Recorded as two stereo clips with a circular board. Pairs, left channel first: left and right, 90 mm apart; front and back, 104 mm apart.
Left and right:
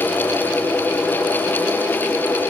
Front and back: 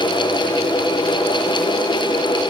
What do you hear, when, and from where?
Only background noise.